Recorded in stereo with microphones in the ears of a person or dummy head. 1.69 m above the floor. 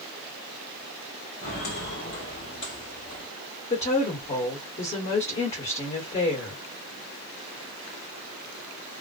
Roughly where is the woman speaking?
Left.